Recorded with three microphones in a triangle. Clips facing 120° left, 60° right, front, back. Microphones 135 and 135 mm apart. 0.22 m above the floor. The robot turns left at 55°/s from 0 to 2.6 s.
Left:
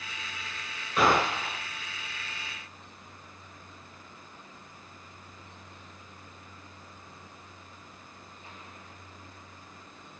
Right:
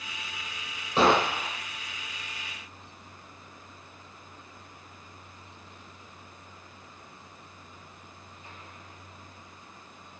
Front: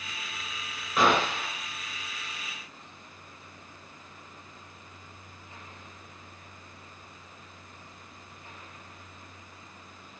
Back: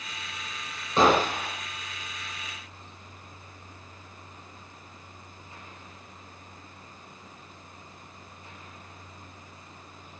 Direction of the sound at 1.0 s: 120° right.